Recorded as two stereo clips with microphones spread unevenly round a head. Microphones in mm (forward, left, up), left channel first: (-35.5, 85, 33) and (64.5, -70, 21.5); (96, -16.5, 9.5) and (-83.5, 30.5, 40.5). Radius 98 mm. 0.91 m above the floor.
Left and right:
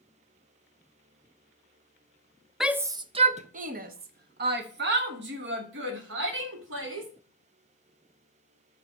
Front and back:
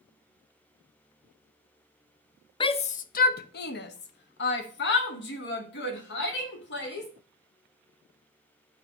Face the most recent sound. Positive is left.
turn(degrees=-40)